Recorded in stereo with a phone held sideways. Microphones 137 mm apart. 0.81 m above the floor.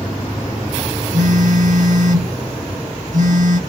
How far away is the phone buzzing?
About 0.8 m.